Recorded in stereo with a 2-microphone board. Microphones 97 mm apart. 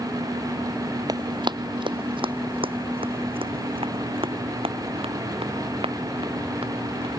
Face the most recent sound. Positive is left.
turn(degrees=-75)  # may be behind; listen again after turning